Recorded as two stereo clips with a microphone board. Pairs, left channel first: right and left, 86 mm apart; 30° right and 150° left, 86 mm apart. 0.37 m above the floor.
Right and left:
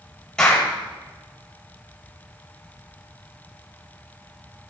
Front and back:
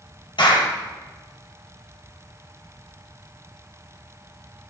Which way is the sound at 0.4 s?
10° right.